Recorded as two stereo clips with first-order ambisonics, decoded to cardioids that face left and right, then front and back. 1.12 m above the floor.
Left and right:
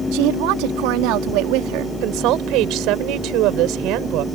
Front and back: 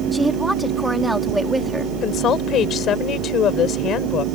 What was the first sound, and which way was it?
A woman speaking, 95° right.